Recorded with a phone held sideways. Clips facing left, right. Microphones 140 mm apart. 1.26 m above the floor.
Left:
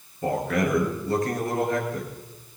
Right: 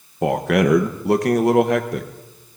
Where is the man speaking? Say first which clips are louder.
Right 7 dB; 75° right (ahead or behind), 0.8 m.